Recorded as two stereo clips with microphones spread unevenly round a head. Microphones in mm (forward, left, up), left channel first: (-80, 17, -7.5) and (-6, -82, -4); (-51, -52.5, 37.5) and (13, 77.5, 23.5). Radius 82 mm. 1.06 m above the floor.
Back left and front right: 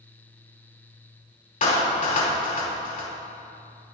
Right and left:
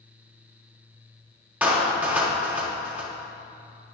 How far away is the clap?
About 2.5 m.